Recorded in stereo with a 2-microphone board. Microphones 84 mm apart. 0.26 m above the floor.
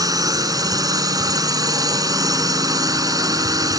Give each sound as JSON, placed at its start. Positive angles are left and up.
{"t": 0.0, "sound": "a drone", "side_deg": -45}